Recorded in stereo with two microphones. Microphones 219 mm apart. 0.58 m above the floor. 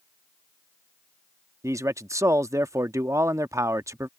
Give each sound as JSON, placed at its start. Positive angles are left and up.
{"t": 1.6, "sound": "a man speaking", "side_deg": -15}